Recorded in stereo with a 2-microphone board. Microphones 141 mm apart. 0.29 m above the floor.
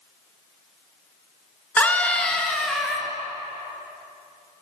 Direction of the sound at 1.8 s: 10° left (ahead or behind).